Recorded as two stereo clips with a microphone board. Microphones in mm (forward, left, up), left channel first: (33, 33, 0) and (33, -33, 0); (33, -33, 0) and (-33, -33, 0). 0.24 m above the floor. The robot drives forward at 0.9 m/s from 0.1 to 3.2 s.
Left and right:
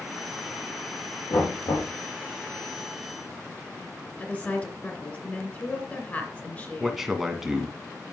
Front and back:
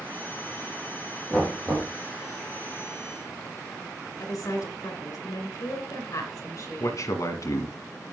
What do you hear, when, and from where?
1.3 s knocking: 85° left, 5 m; by 1.9 s 90° left, 5 m
4.2 s a woman speaking: 25° left, 2.5 m
6.8 s a man speaking: 5° right, 1.7 m